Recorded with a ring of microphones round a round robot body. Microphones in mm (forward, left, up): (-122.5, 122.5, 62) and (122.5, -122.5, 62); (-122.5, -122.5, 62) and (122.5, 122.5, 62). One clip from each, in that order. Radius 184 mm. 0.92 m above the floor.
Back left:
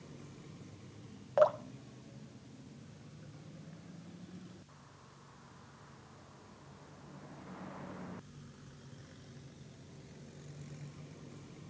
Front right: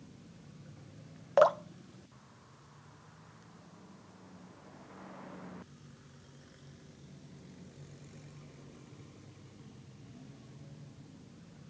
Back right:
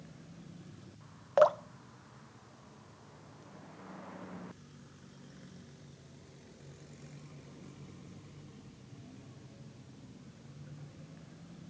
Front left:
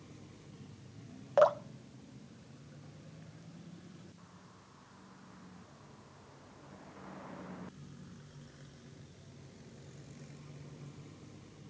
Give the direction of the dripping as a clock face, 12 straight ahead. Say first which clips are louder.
Front right 3 dB, back right 1 dB; 2 o'clock.